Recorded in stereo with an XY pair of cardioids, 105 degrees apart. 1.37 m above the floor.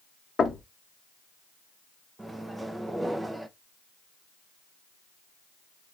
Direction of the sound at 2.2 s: 15° right.